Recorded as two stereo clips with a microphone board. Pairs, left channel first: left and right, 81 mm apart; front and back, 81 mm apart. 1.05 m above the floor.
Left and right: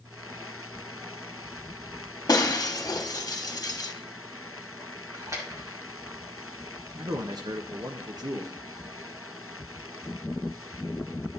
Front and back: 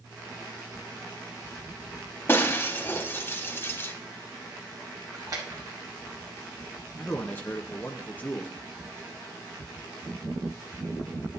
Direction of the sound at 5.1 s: 135° right.